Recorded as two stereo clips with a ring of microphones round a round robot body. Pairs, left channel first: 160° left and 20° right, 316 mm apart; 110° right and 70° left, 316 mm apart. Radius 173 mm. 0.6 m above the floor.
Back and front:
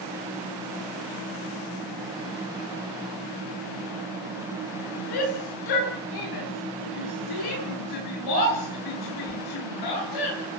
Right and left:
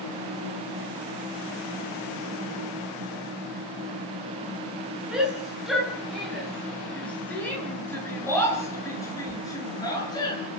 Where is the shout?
155° left, 10 m; by 10.4 s 170° left, 12.5 m.